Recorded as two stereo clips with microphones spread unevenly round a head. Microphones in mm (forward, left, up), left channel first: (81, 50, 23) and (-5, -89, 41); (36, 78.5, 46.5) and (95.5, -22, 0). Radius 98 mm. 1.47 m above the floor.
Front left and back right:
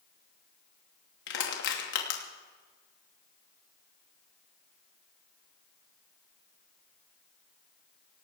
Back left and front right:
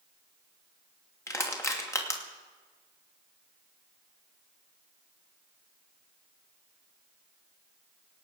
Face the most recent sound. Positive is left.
turn(degrees=55)